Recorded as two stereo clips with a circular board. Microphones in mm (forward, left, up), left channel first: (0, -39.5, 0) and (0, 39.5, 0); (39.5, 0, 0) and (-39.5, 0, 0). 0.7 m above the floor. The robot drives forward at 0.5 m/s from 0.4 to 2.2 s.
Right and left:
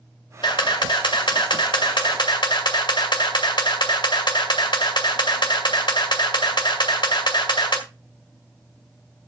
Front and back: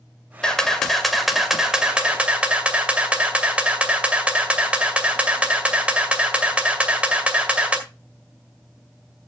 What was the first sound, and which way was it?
A camera shutter, 80° right.